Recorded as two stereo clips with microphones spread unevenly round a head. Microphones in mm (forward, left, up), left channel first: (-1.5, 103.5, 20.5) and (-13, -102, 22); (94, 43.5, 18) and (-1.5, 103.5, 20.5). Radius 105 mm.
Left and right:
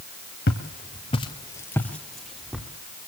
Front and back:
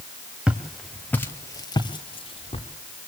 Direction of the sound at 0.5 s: 75° left.